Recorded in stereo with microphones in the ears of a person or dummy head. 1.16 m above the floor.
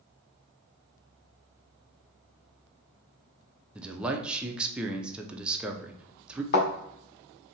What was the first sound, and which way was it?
A man speaking, 10° right (ahead or behind).